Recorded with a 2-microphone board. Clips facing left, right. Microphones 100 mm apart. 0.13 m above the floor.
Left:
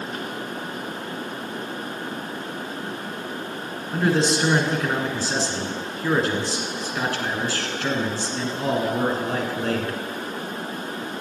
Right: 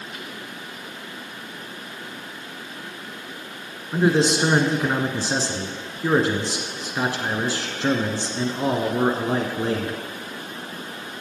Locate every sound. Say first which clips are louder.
3.9 s a man speaking: right 2 dB; 20° right (ahead or behind), 1.1 m